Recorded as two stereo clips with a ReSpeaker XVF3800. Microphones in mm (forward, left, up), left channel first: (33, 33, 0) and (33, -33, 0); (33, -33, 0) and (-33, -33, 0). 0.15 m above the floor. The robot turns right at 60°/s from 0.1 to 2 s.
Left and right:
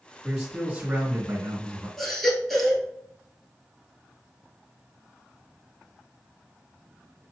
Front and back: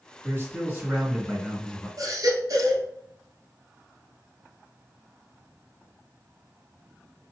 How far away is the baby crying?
About 1.4 m.